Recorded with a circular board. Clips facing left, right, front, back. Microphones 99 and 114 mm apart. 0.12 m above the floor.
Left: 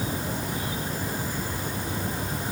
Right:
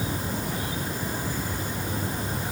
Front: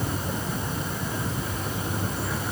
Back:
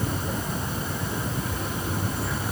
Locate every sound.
Only background noise.